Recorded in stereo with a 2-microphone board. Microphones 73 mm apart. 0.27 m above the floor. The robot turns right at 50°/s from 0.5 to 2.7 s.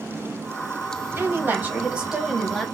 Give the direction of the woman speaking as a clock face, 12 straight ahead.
2 o'clock.